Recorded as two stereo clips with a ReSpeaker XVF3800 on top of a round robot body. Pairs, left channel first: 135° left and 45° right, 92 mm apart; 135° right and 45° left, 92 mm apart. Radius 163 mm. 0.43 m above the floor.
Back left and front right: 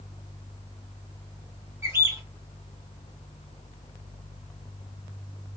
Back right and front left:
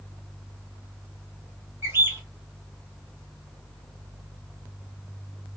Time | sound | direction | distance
1.8 | a bird | straight ahead | 1.6 m